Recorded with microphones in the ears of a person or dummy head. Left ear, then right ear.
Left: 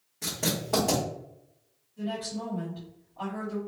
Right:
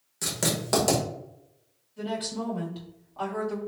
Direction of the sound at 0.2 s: 55° right (ahead or behind).